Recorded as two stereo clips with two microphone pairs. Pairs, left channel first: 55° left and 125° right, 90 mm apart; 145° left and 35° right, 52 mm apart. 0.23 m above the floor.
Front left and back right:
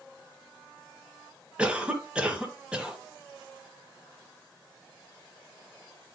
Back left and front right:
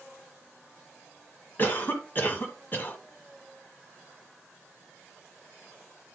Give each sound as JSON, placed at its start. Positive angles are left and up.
{"t": 1.6, "sound": "a cough", "azimuth_deg": 165, "distance_m": 1.3}